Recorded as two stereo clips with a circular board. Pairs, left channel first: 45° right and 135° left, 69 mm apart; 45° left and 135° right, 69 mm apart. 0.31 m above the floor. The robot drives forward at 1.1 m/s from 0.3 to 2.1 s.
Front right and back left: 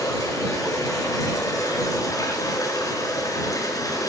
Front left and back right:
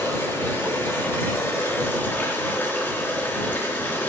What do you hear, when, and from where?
0.0 s running water: 10° right, 6 m; by 4.1 s 20° right, 4.5 m